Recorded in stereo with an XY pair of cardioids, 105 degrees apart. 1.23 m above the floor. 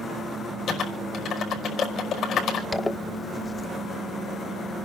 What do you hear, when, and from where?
0.7 s typing on a keyboard: 65° left, 5 m
2.7 s a zipper: 20° left, 1.0 m